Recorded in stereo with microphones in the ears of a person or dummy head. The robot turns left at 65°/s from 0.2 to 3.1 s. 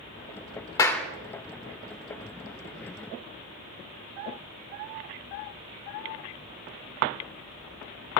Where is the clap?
20° left (ahead or behind), 0.7 m; by 1.1 s centre (ahead or behind), 0.7 m.